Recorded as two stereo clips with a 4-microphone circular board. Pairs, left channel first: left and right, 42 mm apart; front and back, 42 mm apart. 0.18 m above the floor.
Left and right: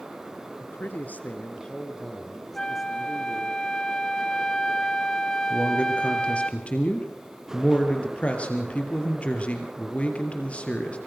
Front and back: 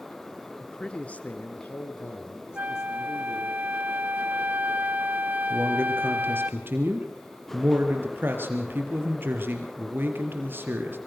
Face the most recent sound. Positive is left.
turn(degrees=145)